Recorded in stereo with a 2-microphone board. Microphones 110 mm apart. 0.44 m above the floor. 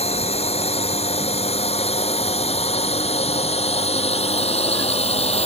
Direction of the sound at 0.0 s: 70° left (ahead or behind).